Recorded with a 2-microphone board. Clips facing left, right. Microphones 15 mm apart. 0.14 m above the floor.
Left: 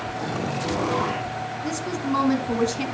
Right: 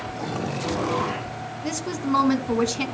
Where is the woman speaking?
15° right (ahead or behind), 1.1 m.